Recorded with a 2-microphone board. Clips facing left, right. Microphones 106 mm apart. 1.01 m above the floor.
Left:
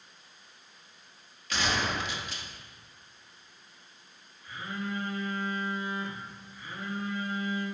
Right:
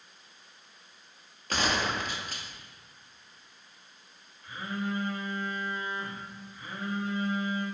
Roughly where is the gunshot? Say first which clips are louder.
Right 1 dB; right.